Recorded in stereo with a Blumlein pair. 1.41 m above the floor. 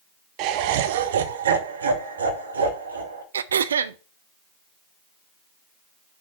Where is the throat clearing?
65° right, 0.5 m.